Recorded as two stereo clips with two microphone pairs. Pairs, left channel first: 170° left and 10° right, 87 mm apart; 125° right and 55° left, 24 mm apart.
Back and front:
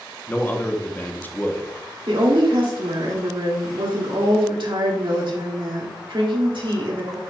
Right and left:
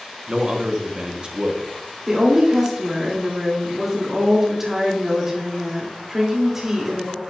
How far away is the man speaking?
About 1.0 m.